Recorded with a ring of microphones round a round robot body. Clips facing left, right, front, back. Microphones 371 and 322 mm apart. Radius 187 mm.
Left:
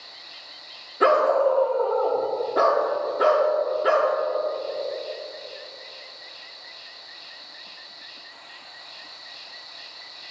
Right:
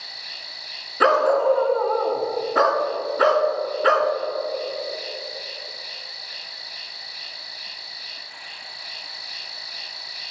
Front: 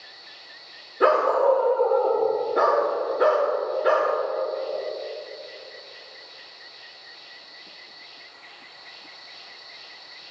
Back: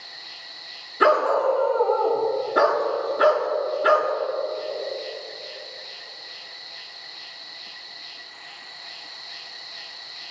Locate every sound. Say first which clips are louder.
0.0 s an insect: right 3 dB, back 2 dB; 120° right, 0.8 m
1.0 s a dog barking: right 1 dB, front 1 dB; 125° right, 1.3 m